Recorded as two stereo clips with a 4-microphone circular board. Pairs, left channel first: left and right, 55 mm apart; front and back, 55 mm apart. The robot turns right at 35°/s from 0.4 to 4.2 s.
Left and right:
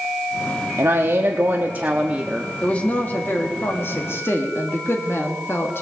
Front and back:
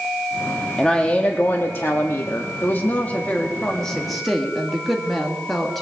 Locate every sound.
0.8 s a woman speaking: 75° right, 0.9 m; by 2.5 s 15° right, 0.9 m
2.6 s a woman speaking: 30° left, 1.5 m; by 5.8 s 85° left, 1.5 m